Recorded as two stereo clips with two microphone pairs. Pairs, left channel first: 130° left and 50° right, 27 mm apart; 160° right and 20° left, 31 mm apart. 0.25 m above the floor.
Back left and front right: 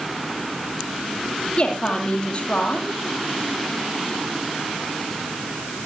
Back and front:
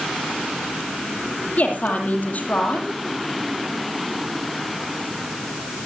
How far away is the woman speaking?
About 8 m.